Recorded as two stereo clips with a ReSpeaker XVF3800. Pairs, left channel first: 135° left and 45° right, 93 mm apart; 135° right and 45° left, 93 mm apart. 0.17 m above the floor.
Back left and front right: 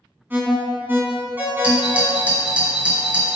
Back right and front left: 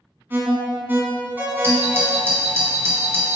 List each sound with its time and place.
0.3 s an alarm: straight ahead, 1.7 m
1.6 s a doorbell: 15° left, 2 m